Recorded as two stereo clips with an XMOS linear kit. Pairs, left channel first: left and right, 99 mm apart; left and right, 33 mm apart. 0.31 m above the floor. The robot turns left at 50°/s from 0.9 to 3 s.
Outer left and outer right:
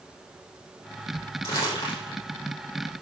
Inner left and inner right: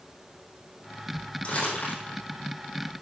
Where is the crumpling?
30° left (ahead or behind), 4 m; by 2.1 s 65° left (ahead or behind), 4 m.